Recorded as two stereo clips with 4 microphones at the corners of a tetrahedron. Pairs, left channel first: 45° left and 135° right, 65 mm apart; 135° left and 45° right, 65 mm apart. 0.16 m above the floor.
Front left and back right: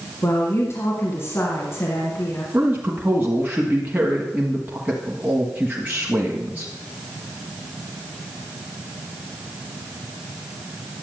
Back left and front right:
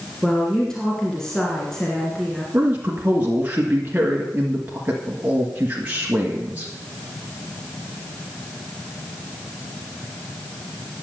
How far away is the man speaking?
About 1.4 m.